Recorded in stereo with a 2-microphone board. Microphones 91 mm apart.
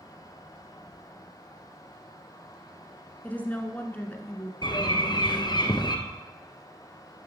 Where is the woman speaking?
20° left (ahead or behind), 1.1 m.